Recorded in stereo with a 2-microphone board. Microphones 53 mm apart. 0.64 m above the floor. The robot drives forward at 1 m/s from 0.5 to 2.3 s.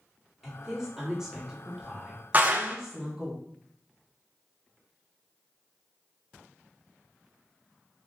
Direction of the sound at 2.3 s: 35° right (ahead or behind).